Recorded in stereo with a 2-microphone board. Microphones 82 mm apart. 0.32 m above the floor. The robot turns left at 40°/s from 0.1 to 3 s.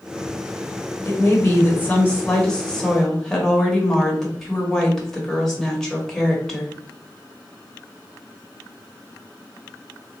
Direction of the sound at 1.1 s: 25° left (ahead or behind).